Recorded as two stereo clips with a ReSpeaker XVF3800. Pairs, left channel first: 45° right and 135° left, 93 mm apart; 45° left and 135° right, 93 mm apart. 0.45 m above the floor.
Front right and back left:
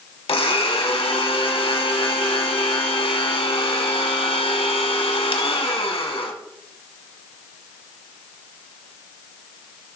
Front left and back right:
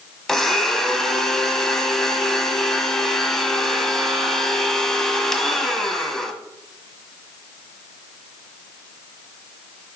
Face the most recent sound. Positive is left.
turn(degrees=-40)